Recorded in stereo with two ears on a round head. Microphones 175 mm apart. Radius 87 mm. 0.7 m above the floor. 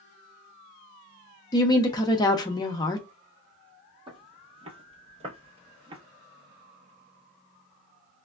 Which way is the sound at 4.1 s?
25° right (ahead or behind).